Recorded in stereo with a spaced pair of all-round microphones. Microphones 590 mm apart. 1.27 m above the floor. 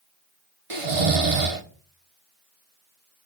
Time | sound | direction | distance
0.7 | snoring | 60° right (ahead or behind) | 1.3 m